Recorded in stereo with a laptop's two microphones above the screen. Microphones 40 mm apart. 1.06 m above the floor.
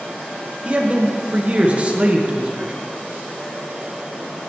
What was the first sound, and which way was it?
A man speaking, 35° right (ahead or behind).